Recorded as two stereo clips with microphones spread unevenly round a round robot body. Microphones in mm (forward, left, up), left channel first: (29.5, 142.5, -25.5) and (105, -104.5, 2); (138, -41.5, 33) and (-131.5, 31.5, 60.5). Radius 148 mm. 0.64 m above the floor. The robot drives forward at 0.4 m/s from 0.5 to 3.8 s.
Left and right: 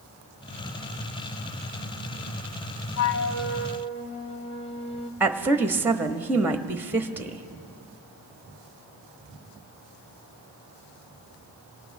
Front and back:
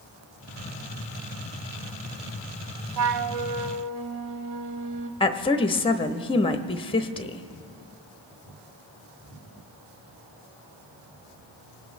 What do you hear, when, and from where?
3.0 s a flute: 135° left, 0.5 m; by 5.1 s 155° left, 0.8 m
5.2 s a woman speaking: 15° left, 0.8 m